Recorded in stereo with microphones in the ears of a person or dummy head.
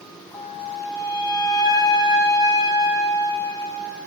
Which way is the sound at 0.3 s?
30° left (ahead or behind).